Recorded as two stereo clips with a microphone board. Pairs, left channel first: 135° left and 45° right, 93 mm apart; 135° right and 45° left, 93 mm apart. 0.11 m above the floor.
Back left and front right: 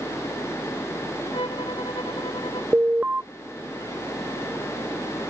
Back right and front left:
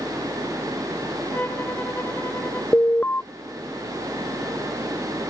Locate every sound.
1.3 s a violin: 155° left
2.7 s an alarm: 95° right